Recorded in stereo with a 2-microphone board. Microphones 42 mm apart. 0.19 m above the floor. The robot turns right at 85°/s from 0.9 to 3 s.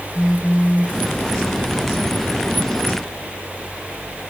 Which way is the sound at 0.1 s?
Centre (ahead or behind).